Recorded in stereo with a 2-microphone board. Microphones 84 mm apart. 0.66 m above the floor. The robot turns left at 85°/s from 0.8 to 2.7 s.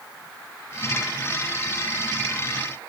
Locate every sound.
Only background noise.